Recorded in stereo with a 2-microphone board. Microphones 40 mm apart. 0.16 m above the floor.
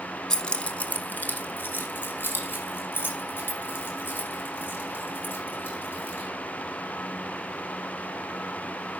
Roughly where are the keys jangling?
Centre.